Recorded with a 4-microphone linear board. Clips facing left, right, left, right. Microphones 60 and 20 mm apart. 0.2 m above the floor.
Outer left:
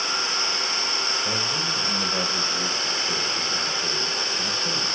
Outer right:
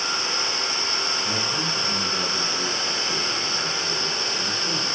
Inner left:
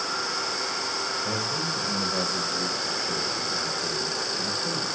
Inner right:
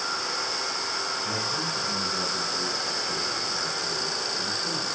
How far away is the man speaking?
About 3.5 m.